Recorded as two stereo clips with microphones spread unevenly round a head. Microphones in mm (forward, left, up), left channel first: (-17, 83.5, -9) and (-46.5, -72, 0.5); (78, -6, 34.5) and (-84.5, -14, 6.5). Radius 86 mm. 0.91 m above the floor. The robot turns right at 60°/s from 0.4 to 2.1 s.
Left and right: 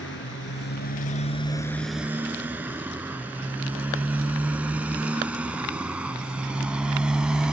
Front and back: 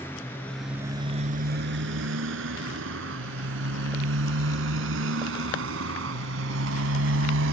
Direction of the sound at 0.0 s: 80° left.